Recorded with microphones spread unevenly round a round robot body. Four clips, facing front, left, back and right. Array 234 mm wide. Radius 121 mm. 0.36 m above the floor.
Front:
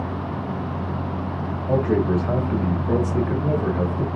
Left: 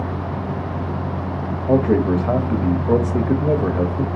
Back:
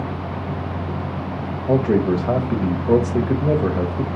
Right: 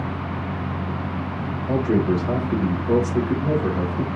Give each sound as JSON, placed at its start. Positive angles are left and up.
{"t": 1.7, "sound": "a man speaking", "azimuth_deg": 135, "distance_m": 1.4}